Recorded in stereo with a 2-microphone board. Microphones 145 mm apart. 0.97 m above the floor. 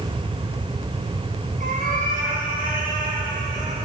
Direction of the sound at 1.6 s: 70° right (ahead or behind).